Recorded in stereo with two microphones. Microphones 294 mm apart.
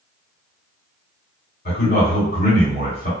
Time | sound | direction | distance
1.6 | a man speaking | 35° left (ahead or behind) | 1.7 m